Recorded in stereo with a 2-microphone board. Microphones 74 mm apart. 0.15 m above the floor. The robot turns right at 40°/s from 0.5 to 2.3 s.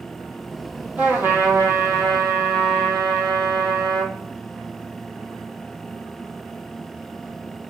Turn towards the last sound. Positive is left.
turn(degrees=-105)